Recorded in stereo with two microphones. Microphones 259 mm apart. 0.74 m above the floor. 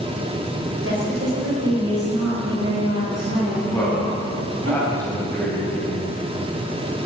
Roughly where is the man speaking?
Centre.